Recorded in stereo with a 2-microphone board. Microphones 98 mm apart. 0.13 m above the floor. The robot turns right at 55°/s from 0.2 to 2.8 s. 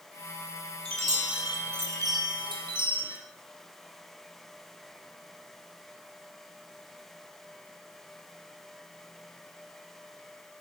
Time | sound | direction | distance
0.8 | a chime | 170° left | 2 m